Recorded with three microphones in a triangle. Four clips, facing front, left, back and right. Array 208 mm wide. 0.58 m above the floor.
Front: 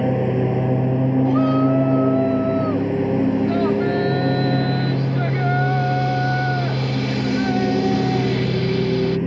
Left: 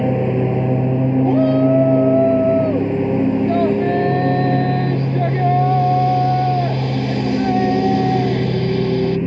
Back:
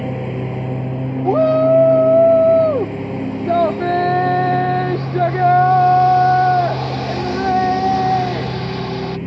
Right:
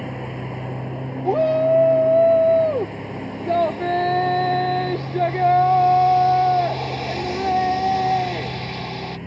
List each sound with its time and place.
0.0 s a lawn mower: 75° left
1.2 s a shout: 175° right